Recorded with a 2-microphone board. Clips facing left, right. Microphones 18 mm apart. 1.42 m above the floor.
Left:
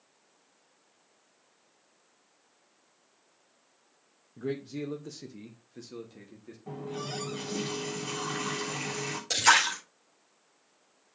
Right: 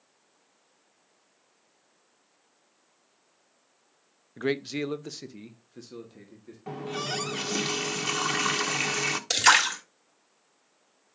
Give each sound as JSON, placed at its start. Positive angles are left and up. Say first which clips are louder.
{"t": 4.4, "sound": "a man speaking", "louder": "right 6 dB", "side_deg": -75, "distance_m": 0.5}
{"t": 6.7, "sound": "a running tap", "louder": "right 5 dB", "side_deg": -55, "distance_m": 0.8}
{"t": 9.3, "sound": "a splash", "louder": "right 2 dB", "side_deg": -25, "distance_m": 2.0}